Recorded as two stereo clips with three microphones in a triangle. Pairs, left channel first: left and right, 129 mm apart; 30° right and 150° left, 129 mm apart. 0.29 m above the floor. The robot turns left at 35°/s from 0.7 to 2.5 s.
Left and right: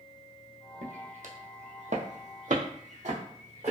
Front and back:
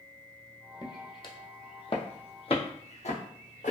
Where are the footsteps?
85° right, 0.7 m; by 3.7 s 55° right, 1.4 m.